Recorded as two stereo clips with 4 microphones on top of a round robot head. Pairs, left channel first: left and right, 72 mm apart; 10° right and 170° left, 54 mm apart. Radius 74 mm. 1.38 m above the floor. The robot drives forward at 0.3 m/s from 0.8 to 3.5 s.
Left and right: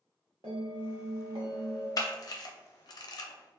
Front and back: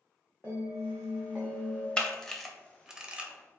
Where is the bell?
80° right, 0.6 m; by 1.9 s 120° right, 0.6 m.